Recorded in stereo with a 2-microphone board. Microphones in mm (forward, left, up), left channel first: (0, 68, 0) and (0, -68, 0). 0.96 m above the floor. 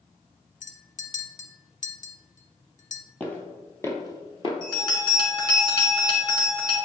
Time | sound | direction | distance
0.6 | a clink | 65° left (ahead or behind) | 0.7 m
3.2 | footsteps | 10° left (ahead or behind) | 1.5 m
4.6 | a bell | 30° left (ahead or behind) | 2 m